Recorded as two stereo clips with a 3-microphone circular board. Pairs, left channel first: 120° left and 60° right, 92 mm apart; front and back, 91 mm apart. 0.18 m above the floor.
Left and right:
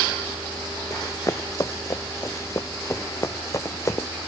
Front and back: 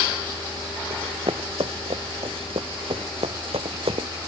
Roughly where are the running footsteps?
Behind.